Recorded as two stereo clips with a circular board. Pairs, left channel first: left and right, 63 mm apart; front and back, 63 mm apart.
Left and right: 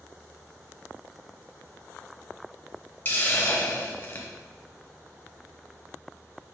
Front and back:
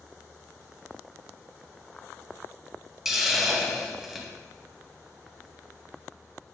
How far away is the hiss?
About 0.6 m.